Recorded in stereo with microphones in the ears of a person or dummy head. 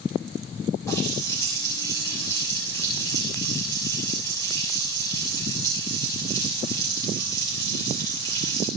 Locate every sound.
0.9 s a running tap: 20° left (ahead or behind), 5.5 m